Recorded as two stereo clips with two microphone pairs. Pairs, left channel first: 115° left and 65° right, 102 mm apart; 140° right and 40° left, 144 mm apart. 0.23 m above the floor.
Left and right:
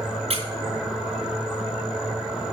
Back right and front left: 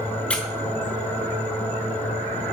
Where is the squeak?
55° right, 1.0 m.